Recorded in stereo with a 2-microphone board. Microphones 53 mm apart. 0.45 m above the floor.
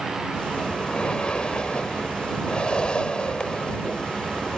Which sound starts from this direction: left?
Breathing, at 0.3 s.